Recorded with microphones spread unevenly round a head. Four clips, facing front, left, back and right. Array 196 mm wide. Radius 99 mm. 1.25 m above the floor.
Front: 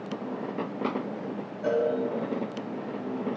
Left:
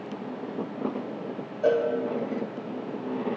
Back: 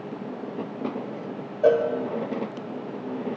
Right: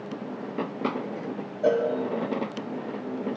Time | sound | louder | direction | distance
1.6 | a cowbell | even, back 7 dB | straight behind | 2 m